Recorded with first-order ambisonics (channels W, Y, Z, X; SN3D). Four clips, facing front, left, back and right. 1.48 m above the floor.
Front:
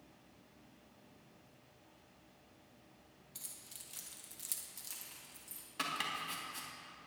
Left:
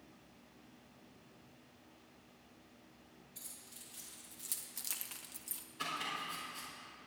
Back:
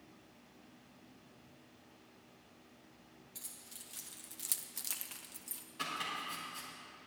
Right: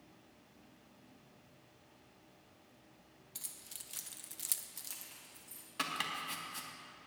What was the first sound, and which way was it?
Keys jangling, 80° right.